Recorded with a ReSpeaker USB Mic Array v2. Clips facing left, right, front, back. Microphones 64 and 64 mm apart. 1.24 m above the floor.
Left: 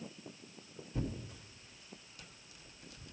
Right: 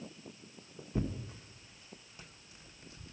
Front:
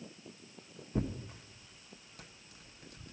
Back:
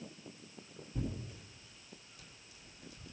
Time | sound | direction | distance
0.9 | tearing paper | 30° right | 1.4 m